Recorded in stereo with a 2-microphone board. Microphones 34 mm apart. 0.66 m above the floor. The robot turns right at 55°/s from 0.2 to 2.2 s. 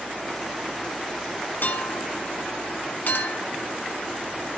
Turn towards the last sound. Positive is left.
turn(degrees=70)  # may be behind; listen again after turning